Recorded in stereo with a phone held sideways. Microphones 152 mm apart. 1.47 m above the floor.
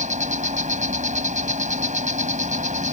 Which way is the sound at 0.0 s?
55° right (ahead or behind).